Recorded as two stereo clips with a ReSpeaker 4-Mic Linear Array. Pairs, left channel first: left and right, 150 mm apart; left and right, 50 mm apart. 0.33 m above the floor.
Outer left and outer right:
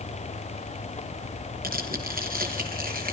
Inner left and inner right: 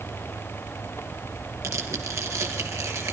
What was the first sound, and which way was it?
Tearing paper, 75° right (ahead or behind).